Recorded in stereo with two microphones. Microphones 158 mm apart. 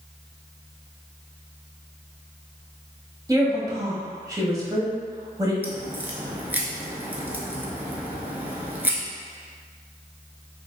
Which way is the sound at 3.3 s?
20° right (ahead or behind).